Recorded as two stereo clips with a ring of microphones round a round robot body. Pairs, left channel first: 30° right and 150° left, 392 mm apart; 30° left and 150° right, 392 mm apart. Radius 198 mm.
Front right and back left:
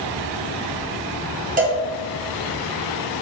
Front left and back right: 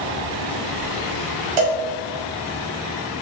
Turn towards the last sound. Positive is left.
turn(degrees=-140)